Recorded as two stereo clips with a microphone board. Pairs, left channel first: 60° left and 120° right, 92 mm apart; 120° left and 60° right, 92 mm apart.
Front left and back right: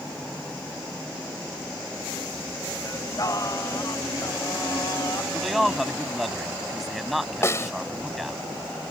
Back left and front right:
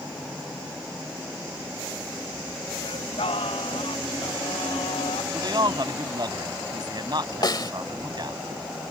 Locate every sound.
2.8 s singing: 110° left
5.3 s a man speaking: 30° right
7.4 s a snare drum: 110° left